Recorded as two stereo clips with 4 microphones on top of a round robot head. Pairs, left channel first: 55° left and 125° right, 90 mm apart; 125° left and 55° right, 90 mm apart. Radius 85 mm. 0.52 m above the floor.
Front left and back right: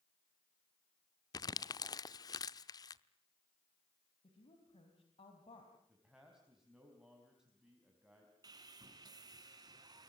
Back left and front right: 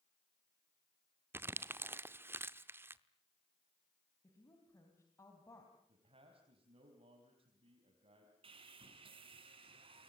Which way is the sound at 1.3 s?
10° left.